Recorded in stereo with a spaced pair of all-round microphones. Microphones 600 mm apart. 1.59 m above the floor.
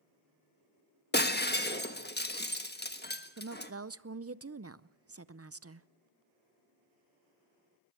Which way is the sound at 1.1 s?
15° left (ahead or behind).